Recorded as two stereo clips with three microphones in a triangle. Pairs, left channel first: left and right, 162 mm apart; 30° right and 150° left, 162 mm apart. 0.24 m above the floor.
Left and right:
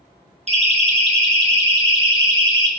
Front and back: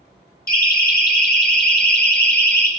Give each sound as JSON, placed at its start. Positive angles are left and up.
{"t": 0.5, "sound": "a siren", "azimuth_deg": -45, "distance_m": 3.5}